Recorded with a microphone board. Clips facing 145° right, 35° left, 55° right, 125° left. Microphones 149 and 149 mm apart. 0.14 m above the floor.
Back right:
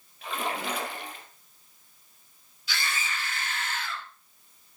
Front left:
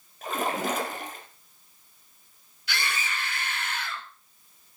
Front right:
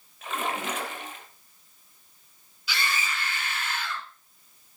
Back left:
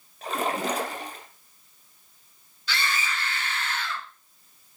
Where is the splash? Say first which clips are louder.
Front left 4 dB, back left 4 dB; 75° left, 3 m.